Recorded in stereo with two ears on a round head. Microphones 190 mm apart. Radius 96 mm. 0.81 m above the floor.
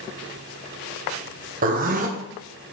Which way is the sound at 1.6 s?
40° right (ahead or behind).